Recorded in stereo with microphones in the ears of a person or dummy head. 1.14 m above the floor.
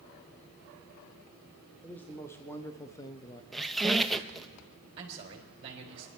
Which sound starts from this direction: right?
A man speaking, at 5.0 s.